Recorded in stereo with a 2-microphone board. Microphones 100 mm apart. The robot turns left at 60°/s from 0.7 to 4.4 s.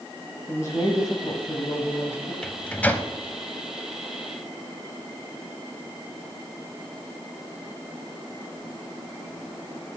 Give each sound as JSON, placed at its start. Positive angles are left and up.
{"t": 0.5, "sound": "a woman speaking", "azimuth_deg": 130, "distance_m": 1.4}
{"t": 2.4, "sound": "a microwave", "side_deg": 10, "distance_m": 0.8}